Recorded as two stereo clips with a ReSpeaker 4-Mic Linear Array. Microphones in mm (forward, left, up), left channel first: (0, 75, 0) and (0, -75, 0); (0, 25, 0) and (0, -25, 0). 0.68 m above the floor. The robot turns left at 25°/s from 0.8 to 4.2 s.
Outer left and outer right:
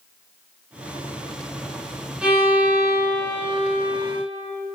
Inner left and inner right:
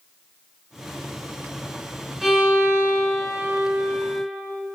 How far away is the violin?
About 2.5 m.